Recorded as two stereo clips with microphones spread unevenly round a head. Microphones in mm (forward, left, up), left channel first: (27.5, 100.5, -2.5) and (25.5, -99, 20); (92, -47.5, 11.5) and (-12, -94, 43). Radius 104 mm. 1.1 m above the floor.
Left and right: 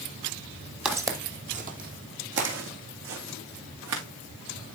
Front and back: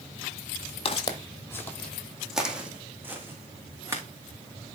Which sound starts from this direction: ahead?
Footsteps, at 0.8 s.